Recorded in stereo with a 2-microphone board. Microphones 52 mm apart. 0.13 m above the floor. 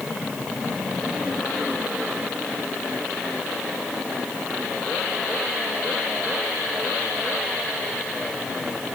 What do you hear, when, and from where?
Only background noise.